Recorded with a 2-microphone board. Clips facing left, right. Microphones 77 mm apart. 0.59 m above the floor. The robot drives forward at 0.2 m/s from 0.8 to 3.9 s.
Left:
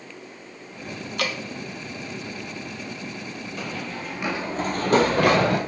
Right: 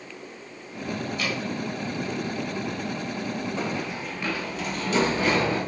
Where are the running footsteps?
30° right (ahead or behind), 0.9 m; by 5.6 s 65° left (ahead or behind), 1.5 m.